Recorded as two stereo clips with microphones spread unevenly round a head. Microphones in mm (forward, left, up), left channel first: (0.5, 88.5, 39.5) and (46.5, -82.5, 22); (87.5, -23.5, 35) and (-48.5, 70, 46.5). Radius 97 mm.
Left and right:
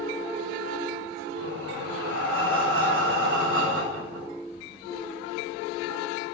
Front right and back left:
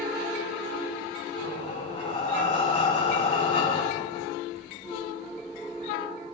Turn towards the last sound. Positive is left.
turn(degrees=-95)